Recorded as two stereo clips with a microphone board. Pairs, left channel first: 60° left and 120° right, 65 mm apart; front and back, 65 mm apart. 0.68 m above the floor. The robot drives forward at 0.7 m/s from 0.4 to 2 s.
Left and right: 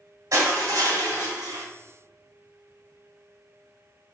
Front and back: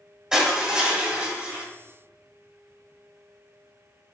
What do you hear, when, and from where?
0.3 s crushing: 100° right, 2 m; by 1.6 s 120° right, 2.5 m